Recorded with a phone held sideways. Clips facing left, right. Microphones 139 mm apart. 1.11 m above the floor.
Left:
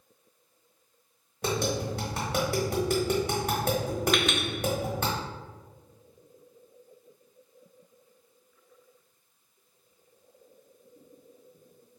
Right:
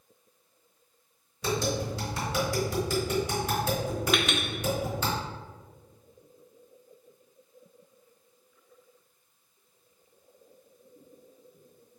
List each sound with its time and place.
1.4 s tapping: 60° left (ahead or behind), 1.3 m
4.1 s a clink: 5° right (ahead or behind), 0.5 m